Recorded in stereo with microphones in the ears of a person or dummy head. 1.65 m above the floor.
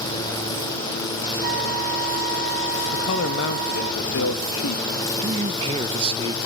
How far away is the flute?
About 1.1 m.